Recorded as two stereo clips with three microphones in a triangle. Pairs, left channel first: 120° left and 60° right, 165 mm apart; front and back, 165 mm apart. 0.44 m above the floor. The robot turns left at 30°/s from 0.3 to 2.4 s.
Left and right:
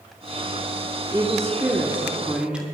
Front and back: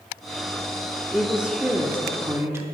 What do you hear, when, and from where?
1.1 s a woman speaking: 95° right, 1.1 m; by 2.6 s 135° right, 1.1 m